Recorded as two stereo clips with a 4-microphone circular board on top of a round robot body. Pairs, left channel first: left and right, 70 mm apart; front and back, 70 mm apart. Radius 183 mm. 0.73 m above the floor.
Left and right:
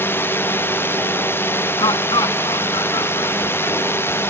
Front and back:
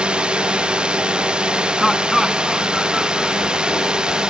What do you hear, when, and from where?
0.0 s a drone: 115° left; by 4.3 s 110° left
1.8 s laughter: 90° left